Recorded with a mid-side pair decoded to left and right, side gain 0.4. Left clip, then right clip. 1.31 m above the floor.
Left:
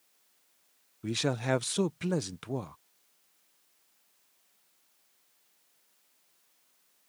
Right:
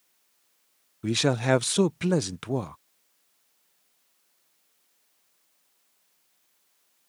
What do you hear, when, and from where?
1.0 s a man speaking: 45° right